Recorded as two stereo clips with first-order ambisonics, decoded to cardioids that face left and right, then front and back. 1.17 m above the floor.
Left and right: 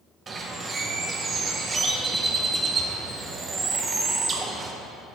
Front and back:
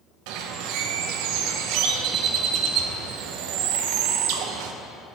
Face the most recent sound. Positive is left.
turn(degrees=-160)